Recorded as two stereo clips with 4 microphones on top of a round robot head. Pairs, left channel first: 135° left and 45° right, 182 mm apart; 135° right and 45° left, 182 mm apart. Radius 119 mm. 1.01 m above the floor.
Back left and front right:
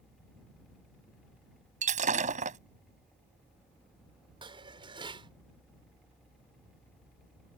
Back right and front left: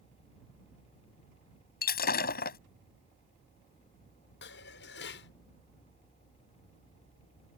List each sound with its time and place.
1.8 s breaking glass: 95° right
4.4 s dishes clattering: 110° right